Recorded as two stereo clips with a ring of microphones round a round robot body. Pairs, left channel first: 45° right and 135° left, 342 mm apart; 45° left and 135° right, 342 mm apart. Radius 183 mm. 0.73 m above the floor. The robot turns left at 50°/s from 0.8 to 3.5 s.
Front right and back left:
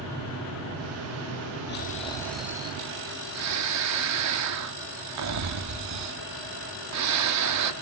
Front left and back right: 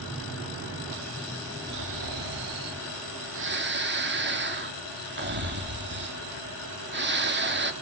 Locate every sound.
1.7 s snoring: 100° right, 1.9 m; by 7.7 s 170° left, 1.9 m